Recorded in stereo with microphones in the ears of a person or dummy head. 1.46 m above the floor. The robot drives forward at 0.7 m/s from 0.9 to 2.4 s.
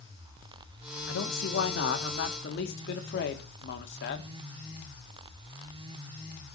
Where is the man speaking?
80° left, 1.9 m; by 4.3 s 60° left (ahead or behind), 2 m.